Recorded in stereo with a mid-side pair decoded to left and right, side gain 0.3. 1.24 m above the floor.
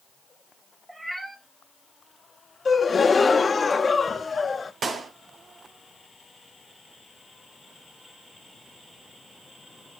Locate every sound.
0.9 s a cat meowing: 20° right, 2 m
2.6 s a gasp: 50° left, 1.1 m
4.8 s a clap: 65° right, 2 m